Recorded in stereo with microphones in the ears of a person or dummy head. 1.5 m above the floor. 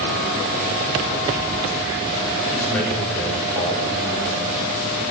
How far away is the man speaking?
About 6 m.